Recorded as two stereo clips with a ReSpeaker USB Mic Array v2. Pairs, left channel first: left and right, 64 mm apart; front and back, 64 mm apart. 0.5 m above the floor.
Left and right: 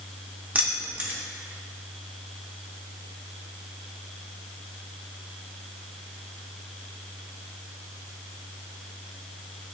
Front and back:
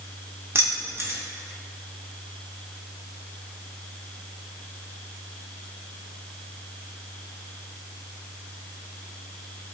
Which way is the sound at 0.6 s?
150° right.